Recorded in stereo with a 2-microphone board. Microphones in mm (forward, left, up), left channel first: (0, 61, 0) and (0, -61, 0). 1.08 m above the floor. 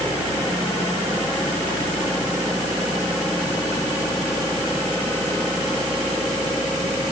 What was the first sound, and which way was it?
Only background noise.